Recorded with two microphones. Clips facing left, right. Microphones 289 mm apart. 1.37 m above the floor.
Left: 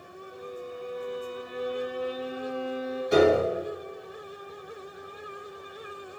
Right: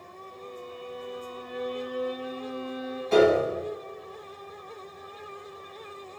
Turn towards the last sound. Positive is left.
turn(degrees=15)  # may be behind; listen again after turning